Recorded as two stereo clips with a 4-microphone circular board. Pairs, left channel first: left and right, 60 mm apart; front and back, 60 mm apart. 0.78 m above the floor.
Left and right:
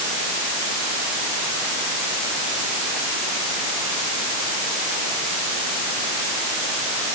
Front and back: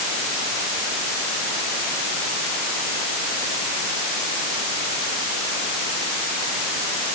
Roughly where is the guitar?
I don't hear a guitar.